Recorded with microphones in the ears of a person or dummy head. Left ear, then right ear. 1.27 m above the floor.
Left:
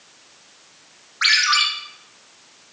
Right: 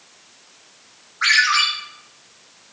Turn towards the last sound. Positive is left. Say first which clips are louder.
# right 1 dB
turn(degrees=50)  # may be behind; listen again after turning